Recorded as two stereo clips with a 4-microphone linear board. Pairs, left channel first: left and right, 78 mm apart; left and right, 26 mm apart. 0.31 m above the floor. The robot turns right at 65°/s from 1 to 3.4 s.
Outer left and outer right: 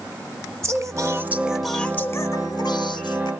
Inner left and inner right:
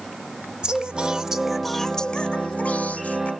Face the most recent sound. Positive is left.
turn(degrees=115)